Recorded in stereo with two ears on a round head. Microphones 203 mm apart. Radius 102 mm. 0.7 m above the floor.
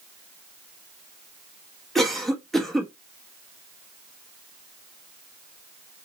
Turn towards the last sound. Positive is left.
turn(degrees=0)  # may be behind; listen again after turning